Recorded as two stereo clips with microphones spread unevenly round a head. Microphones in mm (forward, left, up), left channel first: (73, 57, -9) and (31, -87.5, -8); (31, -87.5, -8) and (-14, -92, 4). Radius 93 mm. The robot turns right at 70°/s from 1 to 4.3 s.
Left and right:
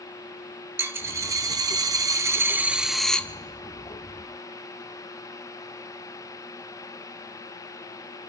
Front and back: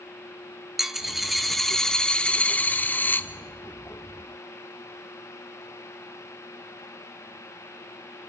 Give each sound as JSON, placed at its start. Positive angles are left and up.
{"t": 0.8, "sound": "a dropped coin", "azimuth_deg": -155, "distance_m": 0.7}